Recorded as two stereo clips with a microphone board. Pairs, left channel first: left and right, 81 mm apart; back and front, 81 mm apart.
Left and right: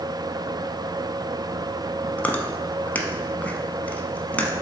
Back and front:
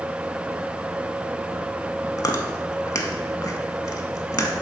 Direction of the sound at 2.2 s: 155° left.